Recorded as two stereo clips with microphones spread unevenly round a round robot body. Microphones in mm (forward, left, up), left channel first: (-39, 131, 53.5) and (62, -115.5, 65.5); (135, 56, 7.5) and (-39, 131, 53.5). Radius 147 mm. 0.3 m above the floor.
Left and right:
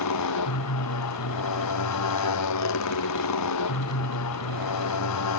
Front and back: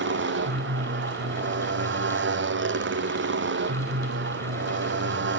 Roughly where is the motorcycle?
Behind left.